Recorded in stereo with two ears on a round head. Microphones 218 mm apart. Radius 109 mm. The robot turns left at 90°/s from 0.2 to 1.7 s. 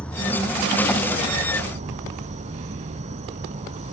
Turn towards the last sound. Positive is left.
turn(degrees=-125)